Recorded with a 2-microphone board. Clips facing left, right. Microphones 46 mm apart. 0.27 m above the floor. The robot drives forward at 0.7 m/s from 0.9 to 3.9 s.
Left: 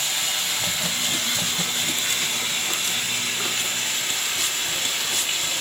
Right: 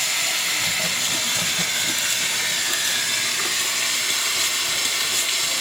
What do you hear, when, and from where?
0.0 s running water: 50° right (ahead or behind), 4 m; by 5.6 s 75° right (ahead or behind), 3 m